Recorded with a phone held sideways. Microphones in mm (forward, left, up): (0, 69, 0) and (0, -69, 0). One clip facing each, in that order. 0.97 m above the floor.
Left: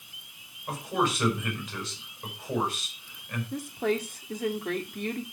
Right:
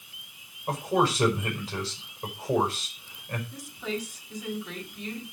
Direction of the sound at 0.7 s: 35° right (ahead or behind).